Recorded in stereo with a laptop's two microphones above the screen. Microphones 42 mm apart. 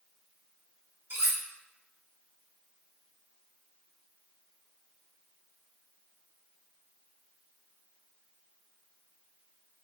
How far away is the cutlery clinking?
About 1.1 m.